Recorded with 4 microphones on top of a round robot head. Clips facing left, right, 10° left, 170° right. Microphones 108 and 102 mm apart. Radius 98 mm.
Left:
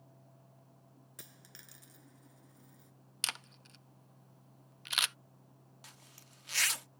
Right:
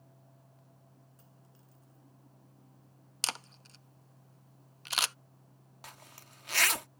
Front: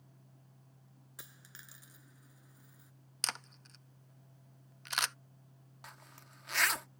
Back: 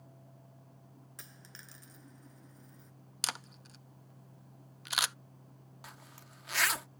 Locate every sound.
1.2 s a dropped coin: 95° left
3.2 s a camera shutter: 90° right
5.8 s a zipper: 80° right